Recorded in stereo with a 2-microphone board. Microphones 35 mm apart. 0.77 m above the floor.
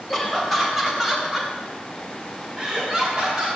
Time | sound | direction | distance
0.1 | laughter | 5° left (ahead or behind) | 3.5 m